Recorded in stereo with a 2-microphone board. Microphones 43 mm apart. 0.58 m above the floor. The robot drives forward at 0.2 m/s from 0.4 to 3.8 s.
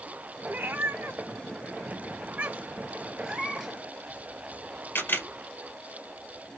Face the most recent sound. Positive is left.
turn(degrees=50)  # may be behind; listen again after turning